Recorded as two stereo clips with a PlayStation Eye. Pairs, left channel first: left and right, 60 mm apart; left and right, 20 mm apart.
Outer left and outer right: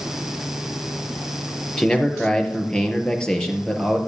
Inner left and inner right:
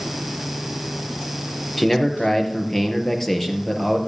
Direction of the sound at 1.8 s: 15° left (ahead or behind).